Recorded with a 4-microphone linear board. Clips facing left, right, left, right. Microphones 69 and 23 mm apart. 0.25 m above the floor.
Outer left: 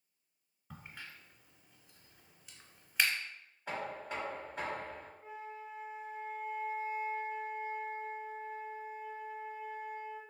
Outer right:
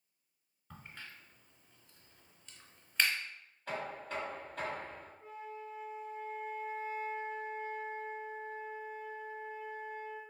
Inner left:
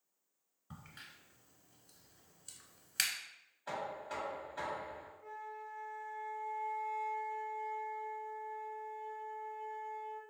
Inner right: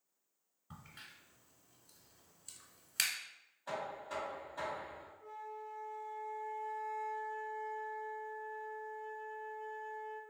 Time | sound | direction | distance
0.7 | a crack | 5° left (ahead or behind) | 0.6 m
3.7 | knocking | 15° left (ahead or behind) | 1.4 m
5.2 | a flute | 15° left (ahead or behind) | 0.9 m